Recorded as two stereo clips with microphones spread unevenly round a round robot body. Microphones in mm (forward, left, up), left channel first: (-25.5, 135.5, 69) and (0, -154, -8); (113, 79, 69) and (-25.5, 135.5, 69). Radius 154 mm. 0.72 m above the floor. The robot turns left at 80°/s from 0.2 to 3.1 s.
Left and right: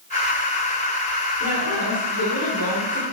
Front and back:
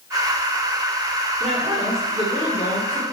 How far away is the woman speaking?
About 2.5 m.